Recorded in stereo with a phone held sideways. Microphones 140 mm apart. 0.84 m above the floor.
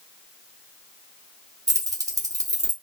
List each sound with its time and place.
1.7 s keys jangling: 25° right (ahead or behind), 0.9 m